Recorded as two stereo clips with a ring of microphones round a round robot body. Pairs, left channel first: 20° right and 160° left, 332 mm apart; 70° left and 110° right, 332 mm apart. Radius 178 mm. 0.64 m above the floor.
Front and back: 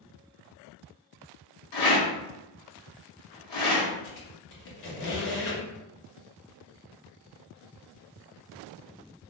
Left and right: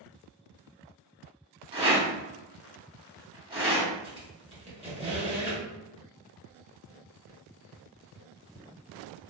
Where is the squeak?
40° right, 1.3 m.